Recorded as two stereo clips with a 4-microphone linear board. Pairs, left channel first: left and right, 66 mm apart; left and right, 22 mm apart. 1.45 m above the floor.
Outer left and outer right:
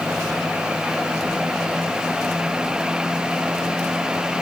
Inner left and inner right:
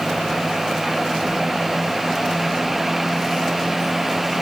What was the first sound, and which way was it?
Only background noise.